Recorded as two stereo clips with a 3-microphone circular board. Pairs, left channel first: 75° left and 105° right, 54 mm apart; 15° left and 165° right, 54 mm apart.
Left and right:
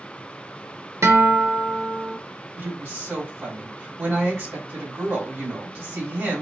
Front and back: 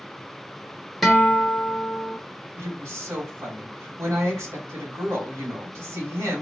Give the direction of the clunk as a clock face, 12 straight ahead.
I don't hear a clunk.